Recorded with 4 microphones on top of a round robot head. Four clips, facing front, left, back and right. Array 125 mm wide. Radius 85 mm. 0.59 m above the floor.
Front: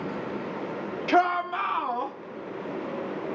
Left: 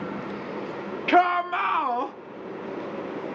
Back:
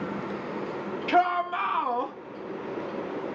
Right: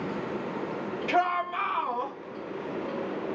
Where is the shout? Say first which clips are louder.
Left 7 dB, front 1 dB; 65° left, 1.2 m; by 2.1 s 100° left, 1.4 m.